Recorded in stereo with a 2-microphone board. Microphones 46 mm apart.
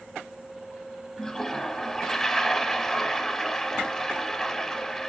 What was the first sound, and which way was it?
A toilet flushing, 10° left (ahead or behind).